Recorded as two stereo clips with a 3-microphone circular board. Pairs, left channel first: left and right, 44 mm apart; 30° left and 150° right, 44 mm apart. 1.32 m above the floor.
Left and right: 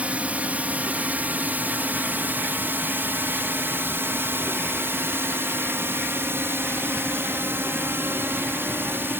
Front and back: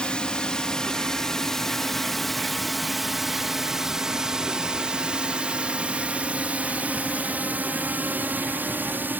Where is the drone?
35° right; by 9.2 s 115° right.